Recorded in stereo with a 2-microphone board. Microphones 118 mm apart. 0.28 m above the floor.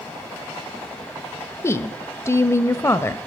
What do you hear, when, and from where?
1.6 s a woman speaking: 25° left (ahead or behind), 0.9 m